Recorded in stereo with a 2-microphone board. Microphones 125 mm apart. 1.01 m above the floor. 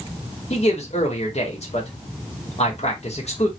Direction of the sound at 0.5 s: 60° left (ahead or behind).